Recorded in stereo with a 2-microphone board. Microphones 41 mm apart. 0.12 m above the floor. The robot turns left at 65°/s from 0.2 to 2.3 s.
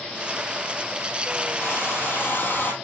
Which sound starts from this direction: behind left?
A hair dryer, at 1.6 s.